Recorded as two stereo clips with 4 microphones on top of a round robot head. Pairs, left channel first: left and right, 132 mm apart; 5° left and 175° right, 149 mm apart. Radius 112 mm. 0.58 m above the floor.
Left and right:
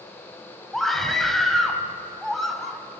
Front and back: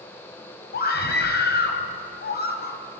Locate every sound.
0.7 s a scream: straight ahead, 4 m